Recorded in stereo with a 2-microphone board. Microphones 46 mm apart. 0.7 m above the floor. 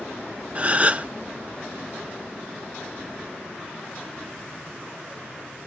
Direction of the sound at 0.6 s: 30° right (ahead or behind).